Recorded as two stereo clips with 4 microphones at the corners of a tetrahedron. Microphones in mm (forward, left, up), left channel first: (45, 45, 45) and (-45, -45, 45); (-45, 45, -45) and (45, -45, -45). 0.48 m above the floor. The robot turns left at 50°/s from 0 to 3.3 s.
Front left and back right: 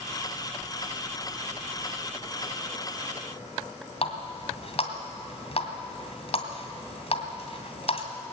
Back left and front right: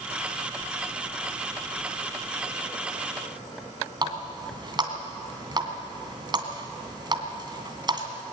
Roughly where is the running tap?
Ahead.